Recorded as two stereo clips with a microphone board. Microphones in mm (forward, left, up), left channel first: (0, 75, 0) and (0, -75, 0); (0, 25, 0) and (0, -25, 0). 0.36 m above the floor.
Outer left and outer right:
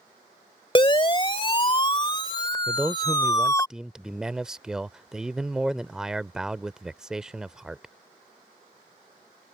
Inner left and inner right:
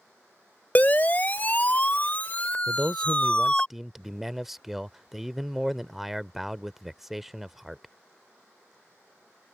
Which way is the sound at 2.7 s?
5° right (ahead or behind).